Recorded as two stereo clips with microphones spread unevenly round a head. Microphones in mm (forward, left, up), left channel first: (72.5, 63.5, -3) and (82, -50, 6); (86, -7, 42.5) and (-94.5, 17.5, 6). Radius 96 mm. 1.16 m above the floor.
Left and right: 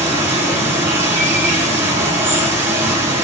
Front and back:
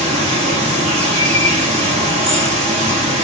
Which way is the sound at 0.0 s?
135° right.